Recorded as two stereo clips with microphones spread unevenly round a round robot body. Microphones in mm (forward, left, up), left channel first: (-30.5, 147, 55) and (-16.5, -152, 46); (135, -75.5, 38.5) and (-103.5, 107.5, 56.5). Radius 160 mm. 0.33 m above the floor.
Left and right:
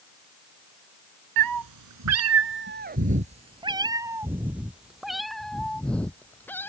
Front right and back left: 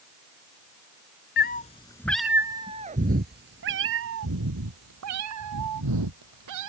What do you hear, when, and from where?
1.4 s a cat meowing: 95° right; by 6.7 s 175° left